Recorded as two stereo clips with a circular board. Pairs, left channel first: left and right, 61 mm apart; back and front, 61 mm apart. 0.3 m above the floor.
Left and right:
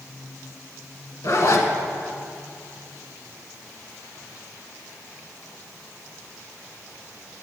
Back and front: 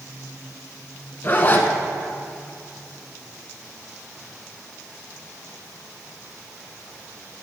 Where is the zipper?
120° left, 0.8 m.